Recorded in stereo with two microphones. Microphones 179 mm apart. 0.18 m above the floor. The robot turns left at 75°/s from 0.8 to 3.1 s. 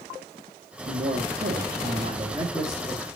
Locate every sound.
0.9 s a man speaking: 40° right, 4 m; by 3.1 s 155° left, 4 m